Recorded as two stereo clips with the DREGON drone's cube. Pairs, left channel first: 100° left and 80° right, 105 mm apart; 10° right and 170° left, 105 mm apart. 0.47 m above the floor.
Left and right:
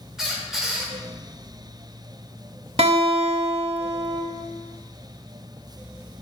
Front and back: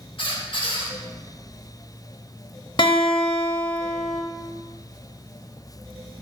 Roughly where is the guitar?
Ahead right.